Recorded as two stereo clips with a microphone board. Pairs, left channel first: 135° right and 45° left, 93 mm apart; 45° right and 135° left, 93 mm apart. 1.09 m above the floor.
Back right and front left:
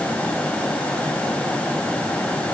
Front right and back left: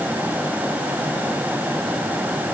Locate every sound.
Only background noise.